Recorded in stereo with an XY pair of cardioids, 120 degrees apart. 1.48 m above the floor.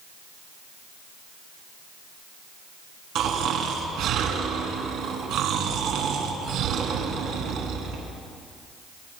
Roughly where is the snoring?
Right.